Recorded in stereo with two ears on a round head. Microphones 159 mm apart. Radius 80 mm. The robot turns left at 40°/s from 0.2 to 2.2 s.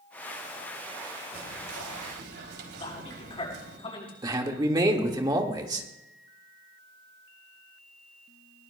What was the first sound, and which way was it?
Whispering, 75° right.